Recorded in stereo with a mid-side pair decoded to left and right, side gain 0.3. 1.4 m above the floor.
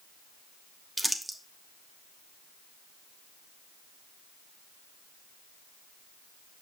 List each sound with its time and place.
1.0 s crumpling: 15° right, 1.2 m